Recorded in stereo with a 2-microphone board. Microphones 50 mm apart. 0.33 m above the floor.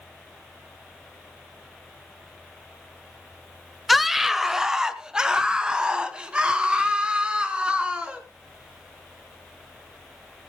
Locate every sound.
3.9 s a scream: centre (ahead or behind), 1.1 m; by 8.2 s 20° right (ahead or behind), 4 m